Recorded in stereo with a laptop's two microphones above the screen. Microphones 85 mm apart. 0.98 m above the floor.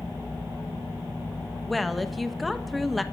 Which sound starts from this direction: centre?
A woman speaking, at 1.7 s.